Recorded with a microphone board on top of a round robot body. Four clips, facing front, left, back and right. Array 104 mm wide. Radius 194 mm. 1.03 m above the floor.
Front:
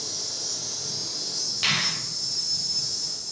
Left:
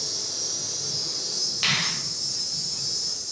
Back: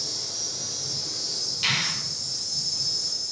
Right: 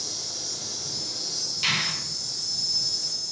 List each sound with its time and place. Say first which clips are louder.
0.0 s an insect: left 2 dB, even; 85° left, 2.0 m
1.6 s a finger snap: left 1 dB, front 1 dB; 65° left, 0.8 m